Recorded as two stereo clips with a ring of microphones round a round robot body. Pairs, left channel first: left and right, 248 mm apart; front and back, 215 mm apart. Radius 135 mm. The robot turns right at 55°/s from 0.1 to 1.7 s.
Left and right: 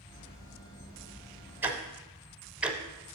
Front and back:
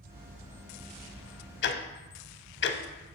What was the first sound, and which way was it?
Ticking, 10° right.